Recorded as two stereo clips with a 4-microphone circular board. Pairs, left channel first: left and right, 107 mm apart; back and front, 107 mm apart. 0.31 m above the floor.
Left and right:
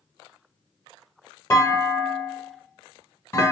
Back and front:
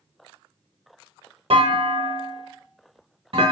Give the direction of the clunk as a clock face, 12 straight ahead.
11 o'clock.